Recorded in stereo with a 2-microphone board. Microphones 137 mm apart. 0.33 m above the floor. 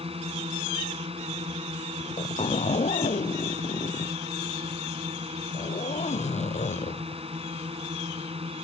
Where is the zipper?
65° left (ahead or behind).